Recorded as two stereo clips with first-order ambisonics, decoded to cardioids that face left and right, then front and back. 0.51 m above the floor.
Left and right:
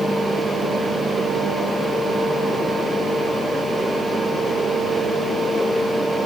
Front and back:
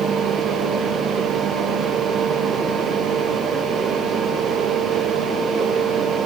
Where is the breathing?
I don't hear breathing.